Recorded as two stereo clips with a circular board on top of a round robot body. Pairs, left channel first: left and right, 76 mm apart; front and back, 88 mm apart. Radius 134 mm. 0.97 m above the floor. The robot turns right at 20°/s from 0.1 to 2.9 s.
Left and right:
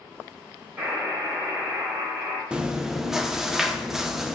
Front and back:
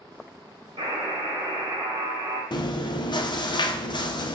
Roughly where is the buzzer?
Behind.